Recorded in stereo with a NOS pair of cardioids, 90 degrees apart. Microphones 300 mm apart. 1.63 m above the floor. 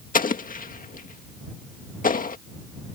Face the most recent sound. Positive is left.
turn(degrees=30)